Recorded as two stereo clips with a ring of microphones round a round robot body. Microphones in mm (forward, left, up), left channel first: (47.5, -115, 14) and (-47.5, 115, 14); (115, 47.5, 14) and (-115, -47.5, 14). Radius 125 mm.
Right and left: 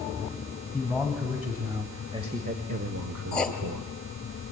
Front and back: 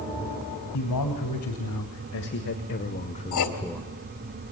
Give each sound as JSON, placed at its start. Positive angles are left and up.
{"t": 0.7, "sound": "a man speaking", "azimuth_deg": 20, "distance_m": 3.0}
{"t": 3.3, "sound": "writing", "azimuth_deg": 20, "distance_m": 2.0}